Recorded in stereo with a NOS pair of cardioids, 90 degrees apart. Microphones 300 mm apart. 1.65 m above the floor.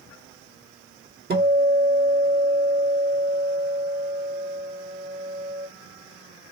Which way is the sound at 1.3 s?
30° right.